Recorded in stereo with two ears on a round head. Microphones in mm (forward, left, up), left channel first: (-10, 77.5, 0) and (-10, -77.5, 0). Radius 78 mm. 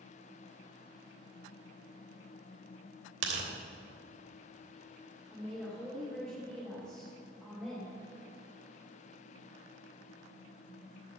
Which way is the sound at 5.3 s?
5° left (ahead or behind).